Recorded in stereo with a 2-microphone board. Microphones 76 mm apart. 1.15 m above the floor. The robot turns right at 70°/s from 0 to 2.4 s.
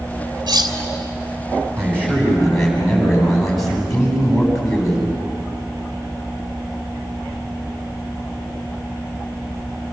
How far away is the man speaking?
About 9.5 m.